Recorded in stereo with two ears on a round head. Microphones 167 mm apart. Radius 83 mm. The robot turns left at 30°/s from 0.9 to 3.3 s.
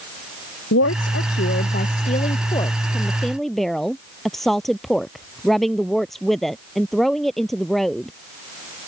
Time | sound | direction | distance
0.7 | a woman speaking | 75° left | ?